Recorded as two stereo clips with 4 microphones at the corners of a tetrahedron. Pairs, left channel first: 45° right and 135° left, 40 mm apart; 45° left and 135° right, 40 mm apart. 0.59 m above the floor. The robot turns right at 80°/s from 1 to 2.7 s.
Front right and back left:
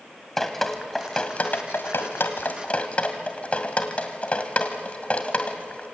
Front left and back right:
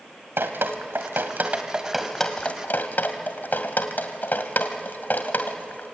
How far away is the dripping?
About 2 m.